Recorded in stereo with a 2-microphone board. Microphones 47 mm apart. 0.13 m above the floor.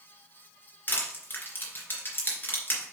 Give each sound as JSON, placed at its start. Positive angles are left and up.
{"t": 0.9, "sound": "crushing", "side_deg": 40, "distance_m": 2.5}